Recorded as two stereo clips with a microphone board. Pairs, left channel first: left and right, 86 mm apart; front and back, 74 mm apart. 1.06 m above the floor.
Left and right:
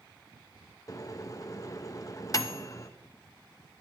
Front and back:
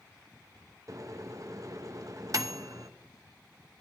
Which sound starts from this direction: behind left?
A microwave, at 0.9 s.